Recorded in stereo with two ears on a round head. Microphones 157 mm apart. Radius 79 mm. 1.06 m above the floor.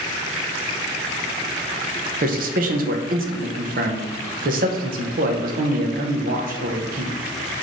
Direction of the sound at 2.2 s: 55° right (ahead or behind).